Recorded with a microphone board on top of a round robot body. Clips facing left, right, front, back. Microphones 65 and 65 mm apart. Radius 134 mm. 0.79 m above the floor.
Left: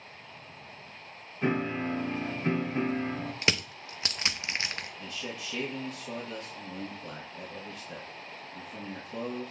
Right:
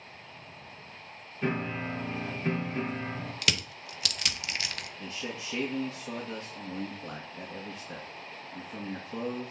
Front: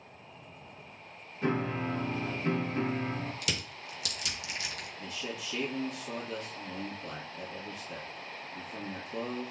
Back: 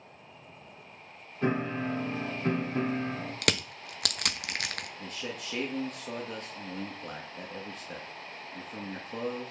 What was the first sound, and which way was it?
A piano, 155° left.